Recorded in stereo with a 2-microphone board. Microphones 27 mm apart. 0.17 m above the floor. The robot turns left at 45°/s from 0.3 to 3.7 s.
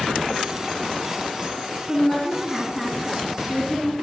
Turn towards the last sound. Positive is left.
turn(degrees=70)